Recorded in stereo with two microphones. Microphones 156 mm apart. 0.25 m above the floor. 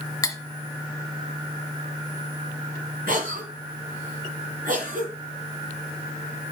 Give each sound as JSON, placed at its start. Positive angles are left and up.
{"t": 0.2, "sound": "cutlery clinking", "side_deg": 20, "distance_m": 1.1}
{"t": 3.1, "sound": "a cough", "side_deg": -65, "distance_m": 4.5}